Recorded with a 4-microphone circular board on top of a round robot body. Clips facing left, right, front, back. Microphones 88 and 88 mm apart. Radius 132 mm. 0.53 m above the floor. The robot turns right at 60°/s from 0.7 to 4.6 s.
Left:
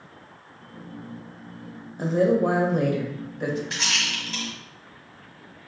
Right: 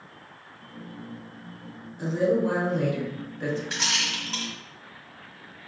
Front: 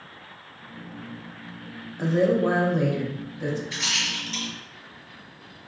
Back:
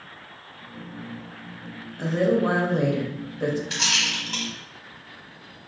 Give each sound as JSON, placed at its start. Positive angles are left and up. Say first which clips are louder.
{"t": 2.0, "sound": "a woman speaking", "louder": "left 3 dB, front 1 dB", "azimuth_deg": 70, "distance_m": 1.2}
{"t": 3.7, "sound": "a rattle", "louder": "left 1 dB, back 3 dB", "azimuth_deg": 180, "distance_m": 1.3}